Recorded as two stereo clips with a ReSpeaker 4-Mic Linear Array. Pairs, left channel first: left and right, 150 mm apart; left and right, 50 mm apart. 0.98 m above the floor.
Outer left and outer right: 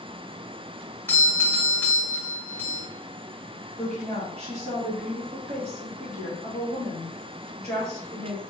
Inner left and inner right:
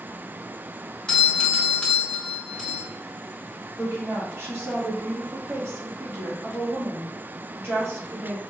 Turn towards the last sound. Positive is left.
turn(degrees=-45)  # may be behind; listen again after turning